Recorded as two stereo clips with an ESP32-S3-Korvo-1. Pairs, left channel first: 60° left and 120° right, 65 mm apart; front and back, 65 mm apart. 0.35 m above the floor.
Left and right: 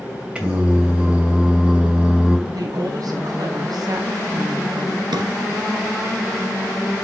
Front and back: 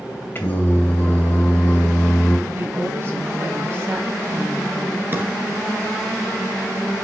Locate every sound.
0.3 s singing: 50° right, 2 m
2.5 s a woman speaking: 130° right, 3 m
5.1 s a drawer: 120° right, 1.8 m